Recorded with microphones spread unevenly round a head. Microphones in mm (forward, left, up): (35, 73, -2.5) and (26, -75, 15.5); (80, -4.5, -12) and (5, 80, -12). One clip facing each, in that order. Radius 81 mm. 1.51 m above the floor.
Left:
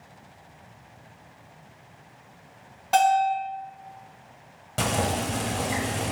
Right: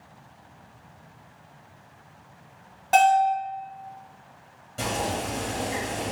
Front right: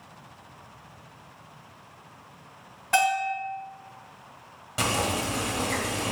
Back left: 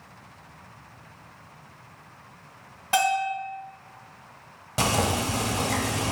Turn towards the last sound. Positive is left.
turn(degrees=75)